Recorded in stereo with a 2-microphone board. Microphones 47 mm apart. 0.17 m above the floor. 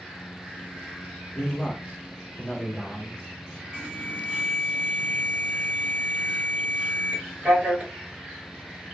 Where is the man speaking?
10° left (ahead or behind), 1.1 m.